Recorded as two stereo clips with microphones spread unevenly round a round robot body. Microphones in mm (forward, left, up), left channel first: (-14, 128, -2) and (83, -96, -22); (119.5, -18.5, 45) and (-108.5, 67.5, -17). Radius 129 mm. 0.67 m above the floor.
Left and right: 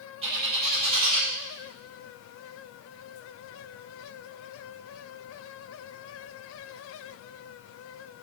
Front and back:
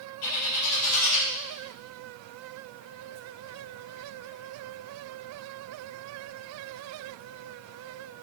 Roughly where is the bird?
Ahead.